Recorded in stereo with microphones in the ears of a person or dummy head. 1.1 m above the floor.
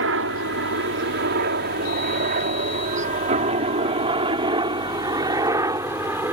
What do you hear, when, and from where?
0.0 s a helicopter: 65° right (ahead or behind); by 6.3 s 15° right (ahead or behind)